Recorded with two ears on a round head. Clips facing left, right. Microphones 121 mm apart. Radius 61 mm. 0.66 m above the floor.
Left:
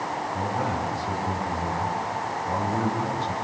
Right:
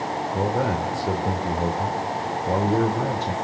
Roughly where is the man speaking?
Right.